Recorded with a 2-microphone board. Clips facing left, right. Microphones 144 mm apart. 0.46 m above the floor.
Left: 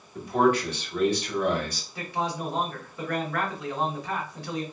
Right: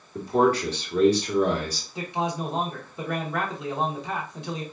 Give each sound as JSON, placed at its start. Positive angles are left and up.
{"t": 0.1, "sound": "a man speaking", "side_deg": -35, "distance_m": 1.2}
{"t": 1.9, "sound": "a man speaking", "side_deg": -20, "distance_m": 0.7}